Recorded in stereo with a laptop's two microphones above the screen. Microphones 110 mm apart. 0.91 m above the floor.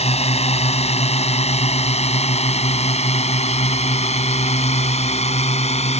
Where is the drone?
70° left (ahead or behind); by 6.0 s 75° left (ahead or behind).